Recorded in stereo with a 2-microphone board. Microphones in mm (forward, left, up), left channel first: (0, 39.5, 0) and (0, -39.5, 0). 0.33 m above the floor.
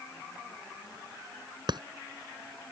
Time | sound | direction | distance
1.7 | a clap | 65° right (ahead or behind) | ?